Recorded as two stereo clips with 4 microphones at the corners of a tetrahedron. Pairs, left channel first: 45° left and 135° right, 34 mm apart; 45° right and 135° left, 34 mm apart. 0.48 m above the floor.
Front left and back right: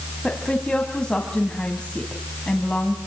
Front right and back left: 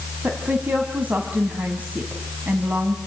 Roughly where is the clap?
I don't hear a clap.